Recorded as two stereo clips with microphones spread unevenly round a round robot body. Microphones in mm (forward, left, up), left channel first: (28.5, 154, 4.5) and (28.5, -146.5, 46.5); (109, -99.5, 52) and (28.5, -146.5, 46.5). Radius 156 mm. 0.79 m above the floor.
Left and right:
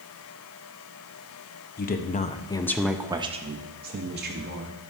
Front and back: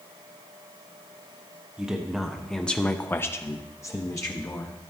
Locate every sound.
1.8 s a woman speaking: 135° left, 0.7 m; by 4.8 s 35° right, 1.1 m